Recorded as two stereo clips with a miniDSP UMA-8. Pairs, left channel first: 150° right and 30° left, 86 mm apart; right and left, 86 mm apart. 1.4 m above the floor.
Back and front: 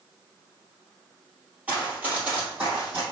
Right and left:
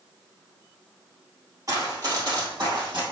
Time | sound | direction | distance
1.7 | running footsteps | 90° left | 1.8 m